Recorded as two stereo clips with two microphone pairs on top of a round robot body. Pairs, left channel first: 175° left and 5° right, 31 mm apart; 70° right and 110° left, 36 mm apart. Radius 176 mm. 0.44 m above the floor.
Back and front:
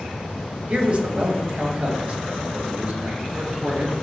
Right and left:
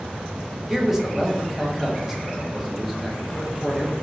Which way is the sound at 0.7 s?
40° left.